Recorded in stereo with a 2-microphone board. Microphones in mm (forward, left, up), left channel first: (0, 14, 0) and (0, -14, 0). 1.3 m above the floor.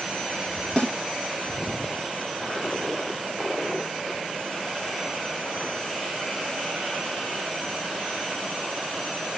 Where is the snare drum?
45° left (ahead or behind), 2 m.